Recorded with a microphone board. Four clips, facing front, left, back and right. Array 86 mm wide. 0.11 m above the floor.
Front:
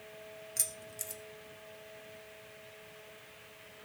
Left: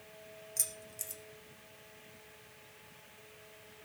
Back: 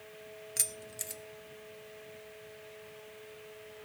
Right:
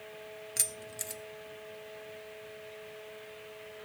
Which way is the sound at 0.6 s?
120° right.